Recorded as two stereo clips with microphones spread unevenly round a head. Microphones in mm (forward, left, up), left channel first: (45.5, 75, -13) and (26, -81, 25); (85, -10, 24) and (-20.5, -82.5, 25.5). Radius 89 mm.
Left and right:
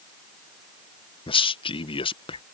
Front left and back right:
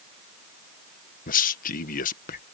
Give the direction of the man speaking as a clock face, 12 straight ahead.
11 o'clock.